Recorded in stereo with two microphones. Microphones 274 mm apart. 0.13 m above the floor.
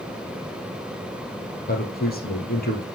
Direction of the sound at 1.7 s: 35° left (ahead or behind).